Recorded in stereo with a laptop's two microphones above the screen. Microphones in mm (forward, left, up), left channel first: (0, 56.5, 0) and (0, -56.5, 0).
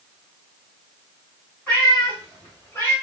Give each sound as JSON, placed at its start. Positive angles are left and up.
{"t": 1.7, "sound": "a cat meowing", "side_deg": 10, "distance_m": 3.5}